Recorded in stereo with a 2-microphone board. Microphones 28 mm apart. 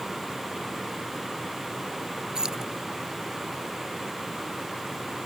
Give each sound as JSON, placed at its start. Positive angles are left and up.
{"t": 2.4, "sound": "keys jangling", "side_deg": -25}